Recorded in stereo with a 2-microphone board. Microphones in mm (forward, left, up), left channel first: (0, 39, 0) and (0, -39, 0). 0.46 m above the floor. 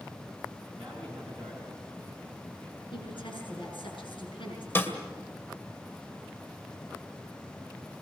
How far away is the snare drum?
About 2 m.